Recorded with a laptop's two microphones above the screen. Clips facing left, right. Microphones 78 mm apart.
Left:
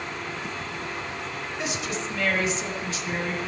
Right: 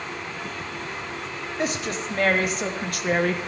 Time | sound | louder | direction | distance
1.6 | a woman speaking | right 4 dB | 45° right (ahead or behind) | 2.0 m